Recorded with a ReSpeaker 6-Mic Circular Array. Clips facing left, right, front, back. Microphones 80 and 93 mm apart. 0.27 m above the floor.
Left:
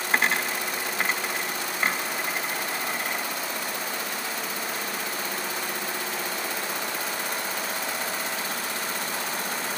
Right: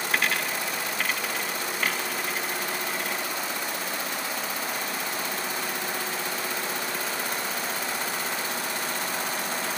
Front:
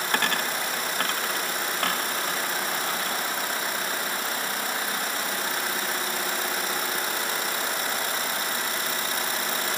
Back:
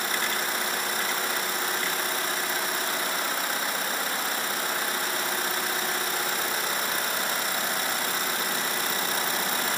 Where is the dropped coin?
25° left.